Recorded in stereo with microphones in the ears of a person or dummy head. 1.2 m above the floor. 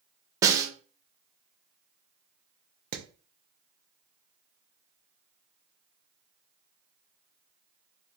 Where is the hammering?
50° right (ahead or behind), 0.5 m.